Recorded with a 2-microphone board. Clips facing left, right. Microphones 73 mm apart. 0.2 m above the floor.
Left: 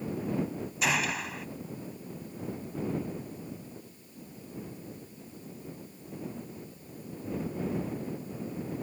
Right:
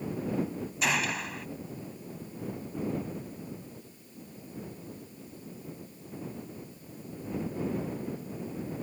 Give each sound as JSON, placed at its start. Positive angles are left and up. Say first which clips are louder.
{"t": 0.8, "sound": "a gunshot", "louder": "even", "side_deg": 0}